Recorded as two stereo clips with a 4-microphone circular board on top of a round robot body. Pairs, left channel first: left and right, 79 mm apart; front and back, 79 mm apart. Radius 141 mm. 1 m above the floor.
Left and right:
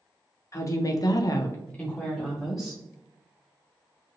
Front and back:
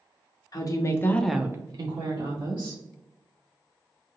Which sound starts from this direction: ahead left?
A woman speaking, at 0.5 s.